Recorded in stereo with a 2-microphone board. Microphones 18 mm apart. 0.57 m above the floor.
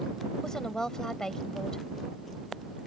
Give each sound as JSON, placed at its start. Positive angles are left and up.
{"t": 0.4, "sound": "a woman speaking", "side_deg": 35}